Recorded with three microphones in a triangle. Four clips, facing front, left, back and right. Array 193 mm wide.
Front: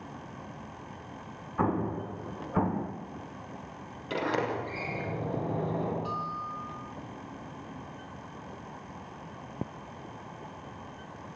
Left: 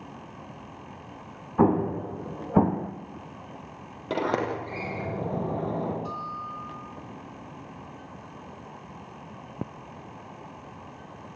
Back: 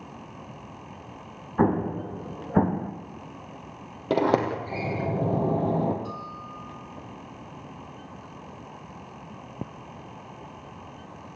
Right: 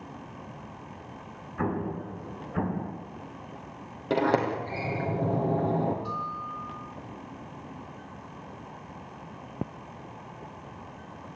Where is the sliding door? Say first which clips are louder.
Right 2 dB, back 8 dB; 175° right, 4.5 m.